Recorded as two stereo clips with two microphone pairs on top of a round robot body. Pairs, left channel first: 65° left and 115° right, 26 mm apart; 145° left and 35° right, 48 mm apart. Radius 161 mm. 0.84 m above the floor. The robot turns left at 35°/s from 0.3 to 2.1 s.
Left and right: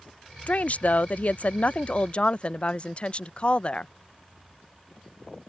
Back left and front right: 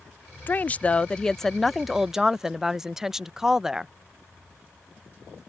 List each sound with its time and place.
0.5 s a woman speaking: 85° left; by 3.9 s 30° left